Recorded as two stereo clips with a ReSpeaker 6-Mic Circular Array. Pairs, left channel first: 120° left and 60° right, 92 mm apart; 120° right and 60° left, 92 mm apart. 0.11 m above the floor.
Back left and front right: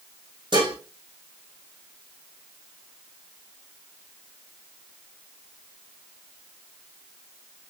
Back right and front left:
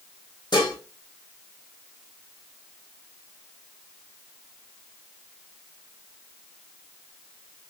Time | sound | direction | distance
0.5 | dishes clattering | 80° right | 3 m